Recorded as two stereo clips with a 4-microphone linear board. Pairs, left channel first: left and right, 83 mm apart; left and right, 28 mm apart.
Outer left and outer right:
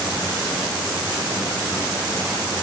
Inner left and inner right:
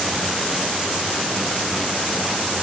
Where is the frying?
I don't hear frying.